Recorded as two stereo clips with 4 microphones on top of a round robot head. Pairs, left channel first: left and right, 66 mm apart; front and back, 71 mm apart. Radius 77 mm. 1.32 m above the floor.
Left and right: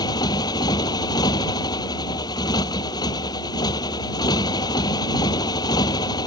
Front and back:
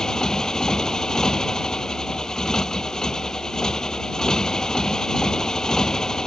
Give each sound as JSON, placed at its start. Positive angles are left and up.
{"t": 0.0, "sound": "a motorcycle", "azimuth_deg": 80}